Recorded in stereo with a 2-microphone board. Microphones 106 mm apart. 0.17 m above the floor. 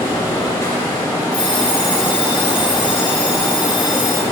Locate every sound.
0.0 s running water: 30° left (ahead or behind), 2.0 m
1.3 s an alarm clock: 40° left (ahead or behind), 1.5 m